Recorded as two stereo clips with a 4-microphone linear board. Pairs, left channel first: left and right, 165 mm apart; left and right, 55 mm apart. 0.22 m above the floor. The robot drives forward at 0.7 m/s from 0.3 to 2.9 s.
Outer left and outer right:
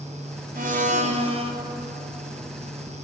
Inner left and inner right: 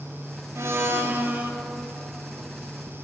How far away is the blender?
About 0.8 m.